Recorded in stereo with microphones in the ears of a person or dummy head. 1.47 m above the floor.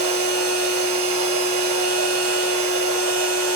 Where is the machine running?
70° right (ahead or behind), 4 m.